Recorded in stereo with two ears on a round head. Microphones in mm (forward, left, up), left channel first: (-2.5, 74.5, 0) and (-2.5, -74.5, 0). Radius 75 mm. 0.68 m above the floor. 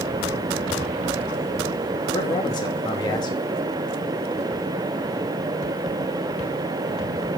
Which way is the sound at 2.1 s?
25° left (ahead or behind).